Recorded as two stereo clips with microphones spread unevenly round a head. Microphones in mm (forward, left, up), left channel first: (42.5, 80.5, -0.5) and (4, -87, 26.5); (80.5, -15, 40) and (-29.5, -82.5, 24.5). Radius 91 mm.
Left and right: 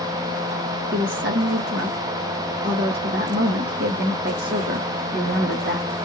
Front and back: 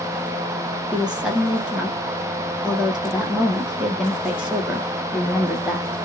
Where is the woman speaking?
65° right, 1.0 m.